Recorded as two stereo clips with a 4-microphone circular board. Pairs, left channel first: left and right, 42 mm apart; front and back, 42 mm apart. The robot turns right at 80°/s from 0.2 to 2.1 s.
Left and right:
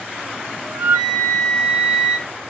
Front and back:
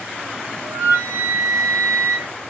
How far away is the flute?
About 1.3 m.